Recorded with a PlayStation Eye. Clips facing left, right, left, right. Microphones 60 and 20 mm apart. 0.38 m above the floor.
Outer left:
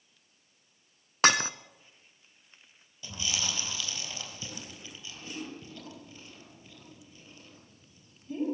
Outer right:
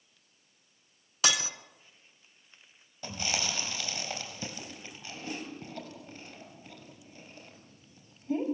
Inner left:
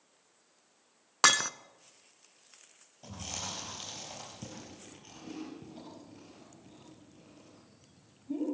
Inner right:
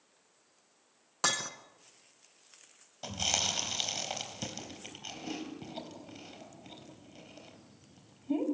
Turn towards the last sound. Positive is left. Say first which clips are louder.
# outer right 2 dB, inner right 9 dB
turn(degrees=-40)  # may be behind; listen again after turning